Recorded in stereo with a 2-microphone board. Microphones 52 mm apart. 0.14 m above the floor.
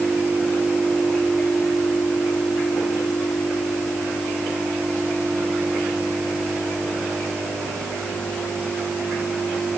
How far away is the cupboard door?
No cupboard door in this recording.